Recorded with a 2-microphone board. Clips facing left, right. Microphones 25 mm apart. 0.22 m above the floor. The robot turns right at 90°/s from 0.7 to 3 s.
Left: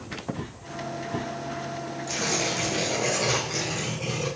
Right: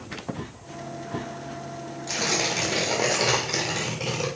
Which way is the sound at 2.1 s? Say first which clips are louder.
Right 2 dB; 145° right.